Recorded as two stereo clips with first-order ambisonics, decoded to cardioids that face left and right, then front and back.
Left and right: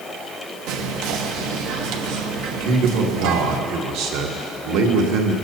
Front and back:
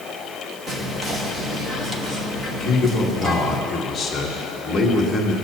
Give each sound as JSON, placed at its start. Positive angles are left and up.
{"t": 0.7, "sound": "whispering", "azimuth_deg": -110, "distance_m": 1.2}
{"t": 2.6, "sound": "a man speaking", "azimuth_deg": -85, "distance_m": 1.7}